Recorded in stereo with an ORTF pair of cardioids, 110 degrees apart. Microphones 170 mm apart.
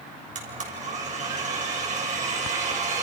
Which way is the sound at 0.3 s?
45° right.